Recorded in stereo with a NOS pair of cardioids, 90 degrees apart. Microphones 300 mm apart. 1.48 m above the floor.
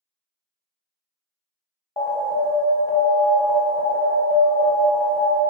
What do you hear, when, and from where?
2.0 s an alarm: 20° left, 0.8 m